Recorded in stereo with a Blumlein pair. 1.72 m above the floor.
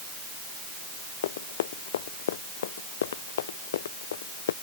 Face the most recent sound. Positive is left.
turn(degrees=60)